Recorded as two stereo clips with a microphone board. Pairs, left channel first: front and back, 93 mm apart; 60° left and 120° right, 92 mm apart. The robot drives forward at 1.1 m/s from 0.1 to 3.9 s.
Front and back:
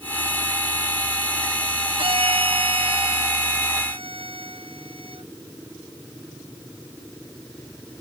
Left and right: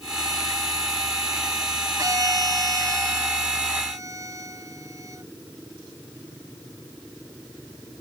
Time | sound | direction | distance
2.0 | a violin | 170° right | ?